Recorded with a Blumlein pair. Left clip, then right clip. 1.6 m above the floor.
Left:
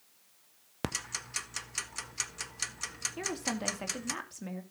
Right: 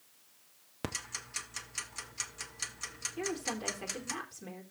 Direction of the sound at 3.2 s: 20° left.